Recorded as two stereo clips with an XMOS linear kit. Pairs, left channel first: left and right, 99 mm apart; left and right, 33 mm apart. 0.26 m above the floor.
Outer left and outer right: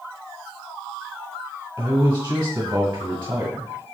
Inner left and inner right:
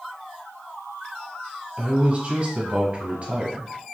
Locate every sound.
1.8 s a man speaking: 25° right (ahead or behind), 1.3 m